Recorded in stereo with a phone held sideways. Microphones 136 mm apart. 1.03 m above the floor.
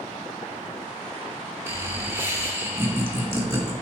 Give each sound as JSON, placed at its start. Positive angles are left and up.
{"t": 1.7, "sound": "laughter", "side_deg": -20, "distance_m": 2.0}